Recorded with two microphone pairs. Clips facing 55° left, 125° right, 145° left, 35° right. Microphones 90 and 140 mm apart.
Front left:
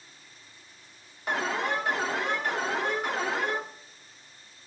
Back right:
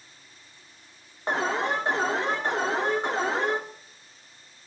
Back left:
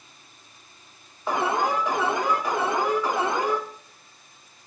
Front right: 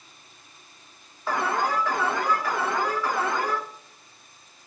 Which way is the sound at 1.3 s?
160° right.